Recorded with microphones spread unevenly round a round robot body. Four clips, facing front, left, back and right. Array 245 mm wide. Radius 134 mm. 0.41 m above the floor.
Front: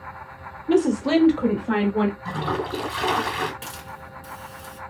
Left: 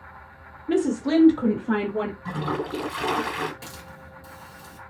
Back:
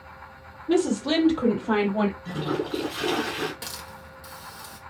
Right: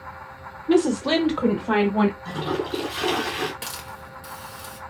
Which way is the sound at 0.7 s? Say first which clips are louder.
Right 3 dB, front 4 dB; 45° right.